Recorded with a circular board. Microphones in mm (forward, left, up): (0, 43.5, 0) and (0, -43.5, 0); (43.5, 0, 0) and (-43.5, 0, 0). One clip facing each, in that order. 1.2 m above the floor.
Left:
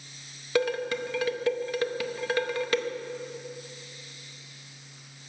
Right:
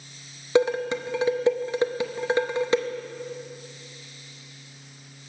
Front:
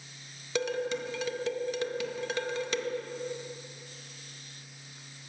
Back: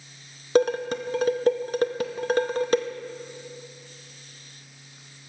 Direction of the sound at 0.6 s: 150° right.